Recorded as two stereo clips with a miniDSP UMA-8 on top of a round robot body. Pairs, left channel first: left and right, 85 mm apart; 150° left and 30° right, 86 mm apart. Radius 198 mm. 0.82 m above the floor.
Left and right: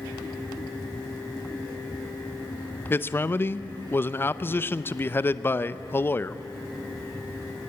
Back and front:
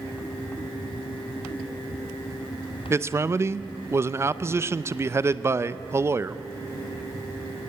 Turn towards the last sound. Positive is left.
turn(degrees=25)